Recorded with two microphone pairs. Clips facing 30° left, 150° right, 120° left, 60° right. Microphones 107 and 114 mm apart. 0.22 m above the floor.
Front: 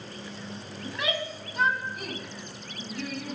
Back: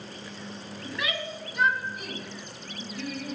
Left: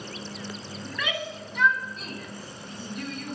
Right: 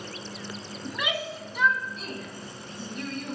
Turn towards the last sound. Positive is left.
turn(degrees=40)